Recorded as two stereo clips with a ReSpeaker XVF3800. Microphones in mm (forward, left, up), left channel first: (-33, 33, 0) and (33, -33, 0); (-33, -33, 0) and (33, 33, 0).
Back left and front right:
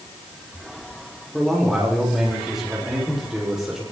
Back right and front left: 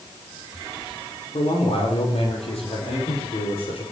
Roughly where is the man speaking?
Behind right.